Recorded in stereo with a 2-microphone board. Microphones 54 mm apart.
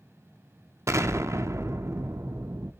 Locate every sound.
0.9 s an explosion: 65° right (ahead or behind), 0.5 m